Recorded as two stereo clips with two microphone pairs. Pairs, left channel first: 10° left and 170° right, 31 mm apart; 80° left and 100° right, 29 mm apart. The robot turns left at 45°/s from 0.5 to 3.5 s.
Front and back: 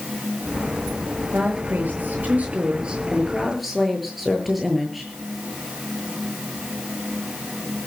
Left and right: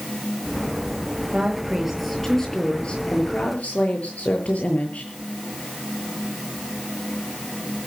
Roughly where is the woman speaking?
Behind.